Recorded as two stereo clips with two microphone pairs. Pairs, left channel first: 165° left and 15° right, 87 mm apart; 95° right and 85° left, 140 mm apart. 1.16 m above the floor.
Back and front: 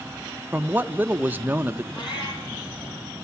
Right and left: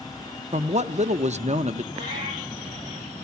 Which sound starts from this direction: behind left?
A cat meowing, at 1.9 s.